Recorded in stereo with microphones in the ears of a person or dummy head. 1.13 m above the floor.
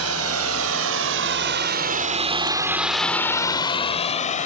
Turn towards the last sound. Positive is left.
turn(degrees=35)  # may be behind; listen again after turning